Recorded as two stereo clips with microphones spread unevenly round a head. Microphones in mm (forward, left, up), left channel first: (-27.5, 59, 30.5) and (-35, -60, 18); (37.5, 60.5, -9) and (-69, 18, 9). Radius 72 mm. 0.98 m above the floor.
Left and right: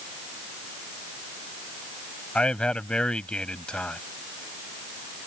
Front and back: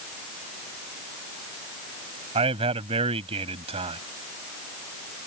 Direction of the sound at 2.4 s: 170° left.